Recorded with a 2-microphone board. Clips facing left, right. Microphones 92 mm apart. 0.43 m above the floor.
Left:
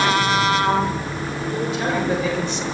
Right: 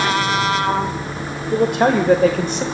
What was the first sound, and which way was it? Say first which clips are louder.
A man speaking: right 9 dB; 60° right (ahead or behind).